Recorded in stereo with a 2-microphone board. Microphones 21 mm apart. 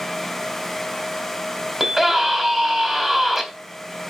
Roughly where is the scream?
Centre.